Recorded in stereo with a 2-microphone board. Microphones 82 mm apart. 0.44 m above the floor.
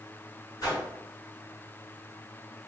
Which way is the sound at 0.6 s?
45° left (ahead or behind).